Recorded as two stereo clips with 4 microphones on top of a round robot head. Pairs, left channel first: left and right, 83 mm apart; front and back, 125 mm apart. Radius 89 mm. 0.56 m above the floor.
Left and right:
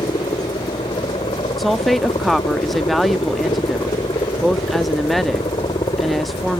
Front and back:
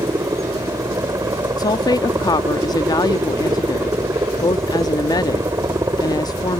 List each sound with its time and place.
0.0 s a helicopter: 115° left
1.6 s a woman speaking: straight ahead